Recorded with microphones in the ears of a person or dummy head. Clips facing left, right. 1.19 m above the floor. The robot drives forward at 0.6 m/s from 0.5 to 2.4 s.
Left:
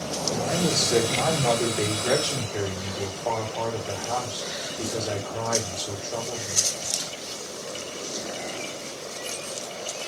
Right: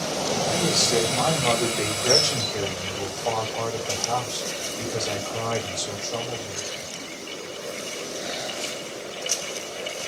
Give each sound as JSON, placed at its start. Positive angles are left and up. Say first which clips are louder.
{"t": 0.3, "sound": "a man speaking", "louder": "left 1 dB", "side_deg": 10, "distance_m": 1.9}